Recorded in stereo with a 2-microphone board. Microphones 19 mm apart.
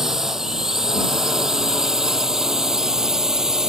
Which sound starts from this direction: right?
A drone, at 0.0 s.